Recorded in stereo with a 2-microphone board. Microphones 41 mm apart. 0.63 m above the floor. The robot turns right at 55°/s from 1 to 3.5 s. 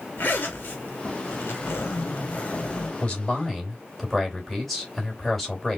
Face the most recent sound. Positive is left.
turn(degrees=5)  # may be behind; listen again after turning